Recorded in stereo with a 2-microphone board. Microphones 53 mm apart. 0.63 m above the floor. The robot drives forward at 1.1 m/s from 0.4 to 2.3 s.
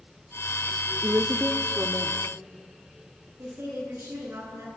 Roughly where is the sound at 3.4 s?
Right.